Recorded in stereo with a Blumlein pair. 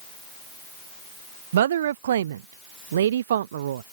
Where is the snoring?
I don't hear snoring.